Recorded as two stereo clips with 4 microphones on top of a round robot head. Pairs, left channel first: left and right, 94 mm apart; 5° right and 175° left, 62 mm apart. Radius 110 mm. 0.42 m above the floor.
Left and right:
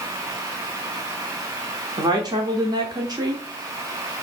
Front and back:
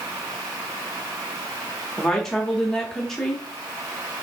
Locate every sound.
2.0 s a woman speaking: 85° right, 1.0 m